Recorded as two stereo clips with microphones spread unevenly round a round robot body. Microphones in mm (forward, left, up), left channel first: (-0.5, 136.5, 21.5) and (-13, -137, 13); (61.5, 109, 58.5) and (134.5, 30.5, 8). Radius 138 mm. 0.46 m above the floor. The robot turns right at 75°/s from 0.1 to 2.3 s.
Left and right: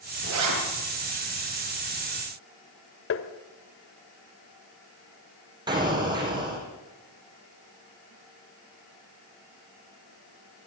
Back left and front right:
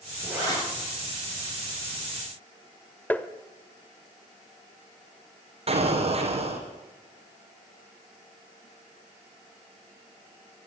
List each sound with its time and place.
0.2 s a zipper: 135° right, 7 m; by 0.6 s 110° right, 7 m
3.1 s tapping: 45° left, 1.4 m
5.7 s an explosion: 15° right, 5 m